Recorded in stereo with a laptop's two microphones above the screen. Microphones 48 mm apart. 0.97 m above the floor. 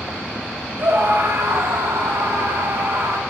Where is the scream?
65° right (ahead or behind), 3 m; by 3.2 s 70° right (ahead or behind), 2.5 m.